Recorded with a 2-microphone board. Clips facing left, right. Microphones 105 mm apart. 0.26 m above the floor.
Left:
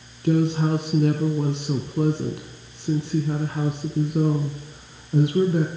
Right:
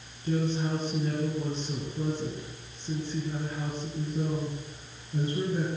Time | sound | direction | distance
0.2 | a woman speaking | 70° left (ahead or behind) | 2.5 m